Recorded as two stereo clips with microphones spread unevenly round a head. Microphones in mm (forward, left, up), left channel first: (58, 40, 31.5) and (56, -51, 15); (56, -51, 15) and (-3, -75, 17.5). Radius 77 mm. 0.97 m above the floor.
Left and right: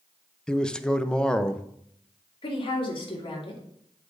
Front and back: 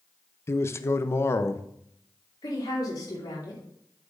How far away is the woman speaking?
About 3 m.